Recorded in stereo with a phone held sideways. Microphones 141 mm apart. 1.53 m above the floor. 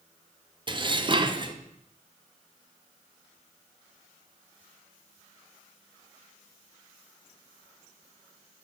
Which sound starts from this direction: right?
Dishes clattering, at 0.7 s.